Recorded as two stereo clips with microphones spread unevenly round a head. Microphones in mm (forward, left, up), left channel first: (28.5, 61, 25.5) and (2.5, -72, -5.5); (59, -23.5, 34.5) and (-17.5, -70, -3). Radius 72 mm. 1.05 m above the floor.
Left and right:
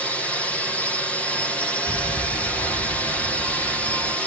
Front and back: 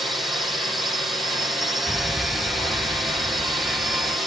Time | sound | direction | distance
0.0 | a drone | 175° left | ?
1.9 | an alarm | 60° right | ?